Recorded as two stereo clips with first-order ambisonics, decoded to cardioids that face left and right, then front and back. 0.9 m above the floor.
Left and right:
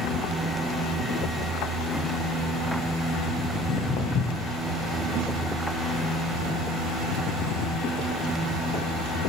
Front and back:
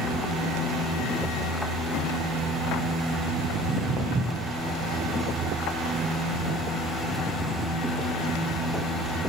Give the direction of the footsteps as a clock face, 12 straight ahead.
8 o'clock.